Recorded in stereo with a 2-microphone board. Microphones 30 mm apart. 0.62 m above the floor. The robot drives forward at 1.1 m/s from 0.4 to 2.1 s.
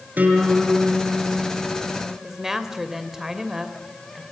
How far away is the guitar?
About 6.5 m.